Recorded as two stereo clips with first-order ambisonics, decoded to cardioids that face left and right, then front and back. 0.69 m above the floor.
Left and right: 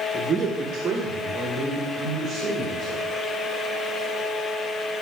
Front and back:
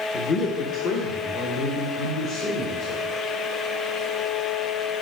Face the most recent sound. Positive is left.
turn(degrees=-15)